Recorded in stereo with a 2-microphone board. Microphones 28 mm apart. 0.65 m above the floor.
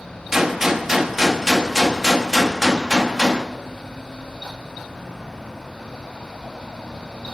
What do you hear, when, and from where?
0.3 s a gunshot: 15° right (ahead or behind), 1.1 m